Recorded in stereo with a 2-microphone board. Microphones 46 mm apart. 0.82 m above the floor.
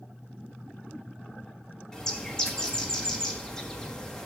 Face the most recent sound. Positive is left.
turn(degrees=15)  # may be behind; listen again after turning